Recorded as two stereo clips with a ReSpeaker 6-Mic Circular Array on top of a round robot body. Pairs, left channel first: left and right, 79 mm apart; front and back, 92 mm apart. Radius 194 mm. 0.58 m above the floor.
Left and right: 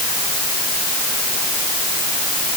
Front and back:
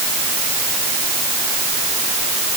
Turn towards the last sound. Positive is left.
No sound to turn to.